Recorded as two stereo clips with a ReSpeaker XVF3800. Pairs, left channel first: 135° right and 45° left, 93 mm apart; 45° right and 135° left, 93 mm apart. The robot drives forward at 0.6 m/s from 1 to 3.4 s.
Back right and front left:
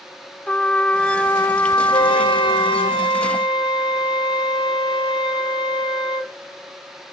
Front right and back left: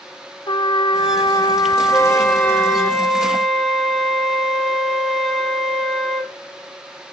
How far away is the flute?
About 1.6 m.